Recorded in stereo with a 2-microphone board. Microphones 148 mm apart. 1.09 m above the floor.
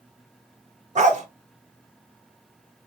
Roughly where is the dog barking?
Right.